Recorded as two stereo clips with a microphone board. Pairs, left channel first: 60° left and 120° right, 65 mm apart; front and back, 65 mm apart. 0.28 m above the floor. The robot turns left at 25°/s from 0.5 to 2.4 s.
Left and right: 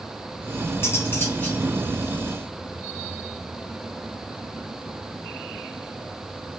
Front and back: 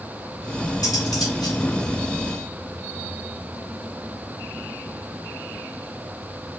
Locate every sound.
0.8 s cutlery clinking: 10° left, 3.5 m; by 1.6 s 10° right, 3.5 m